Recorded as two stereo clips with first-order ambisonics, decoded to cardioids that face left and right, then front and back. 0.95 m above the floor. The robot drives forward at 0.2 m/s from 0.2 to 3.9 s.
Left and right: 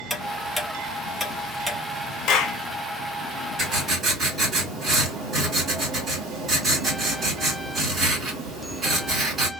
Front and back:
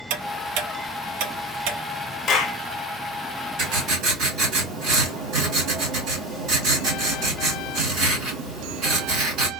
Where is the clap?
60° left, 0.7 m; by 2.6 s 65° left, 0.7 m.